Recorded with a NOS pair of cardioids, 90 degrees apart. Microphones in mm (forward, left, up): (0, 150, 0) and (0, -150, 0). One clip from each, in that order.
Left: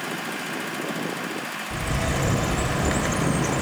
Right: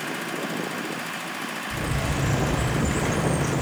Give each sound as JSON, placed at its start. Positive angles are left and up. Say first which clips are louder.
{"t": 1.7, "sound": "a bird", "louder": "left 3 dB", "azimuth_deg": 20, "distance_m": 1.9}